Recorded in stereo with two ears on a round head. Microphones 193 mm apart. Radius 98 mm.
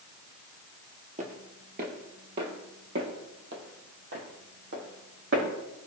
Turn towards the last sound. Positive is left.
turn(degrees=-50)  # may be behind; listen again after turning